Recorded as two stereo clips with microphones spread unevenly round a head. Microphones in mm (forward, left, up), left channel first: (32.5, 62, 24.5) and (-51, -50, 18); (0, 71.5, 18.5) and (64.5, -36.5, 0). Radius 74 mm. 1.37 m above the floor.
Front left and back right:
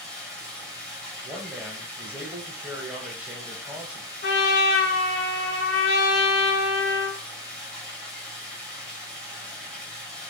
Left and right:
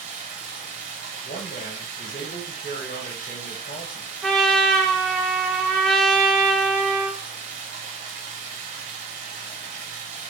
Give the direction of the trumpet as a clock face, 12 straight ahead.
11 o'clock.